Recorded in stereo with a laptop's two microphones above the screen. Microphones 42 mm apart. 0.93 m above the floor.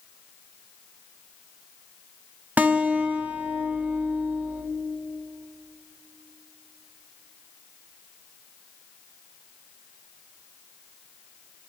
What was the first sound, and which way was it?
A guitar, 40° right (ahead or behind).